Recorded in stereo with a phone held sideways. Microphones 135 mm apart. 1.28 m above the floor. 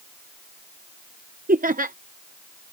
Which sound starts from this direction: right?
Laughter, at 1.5 s.